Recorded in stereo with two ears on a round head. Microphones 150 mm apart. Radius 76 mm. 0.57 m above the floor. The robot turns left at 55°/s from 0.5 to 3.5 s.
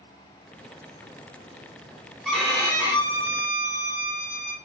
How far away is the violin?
About 1.8 m.